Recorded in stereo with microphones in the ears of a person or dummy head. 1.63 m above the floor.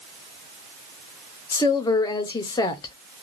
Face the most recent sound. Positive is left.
turn(degrees=25)  # may be behind; listen again after turning